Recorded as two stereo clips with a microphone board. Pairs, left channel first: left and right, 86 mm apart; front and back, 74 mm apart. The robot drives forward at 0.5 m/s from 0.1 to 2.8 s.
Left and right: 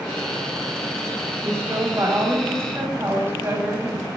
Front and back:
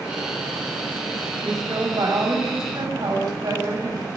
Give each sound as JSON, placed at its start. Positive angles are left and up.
{"t": 1.4, "sound": "a woman speaking", "azimuth_deg": -150, "distance_m": 4.5}